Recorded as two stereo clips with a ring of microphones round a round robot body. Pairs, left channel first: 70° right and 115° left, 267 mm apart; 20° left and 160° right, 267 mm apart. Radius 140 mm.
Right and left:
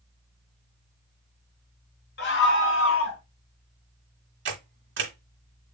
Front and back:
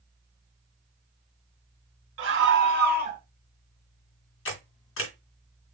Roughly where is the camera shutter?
Ahead left.